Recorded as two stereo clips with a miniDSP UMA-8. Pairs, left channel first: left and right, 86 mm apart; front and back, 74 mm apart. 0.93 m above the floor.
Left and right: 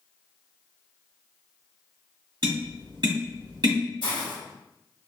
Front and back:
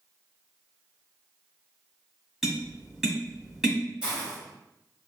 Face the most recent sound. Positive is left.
turn(degrees=105)